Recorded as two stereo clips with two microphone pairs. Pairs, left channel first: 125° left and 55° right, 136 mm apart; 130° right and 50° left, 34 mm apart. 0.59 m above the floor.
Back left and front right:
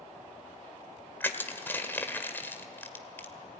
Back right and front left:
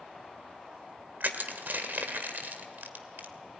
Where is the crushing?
50° left, 1.7 m.